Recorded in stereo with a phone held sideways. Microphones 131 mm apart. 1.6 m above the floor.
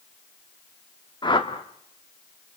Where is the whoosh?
40° left (ahead or behind), 1.8 m.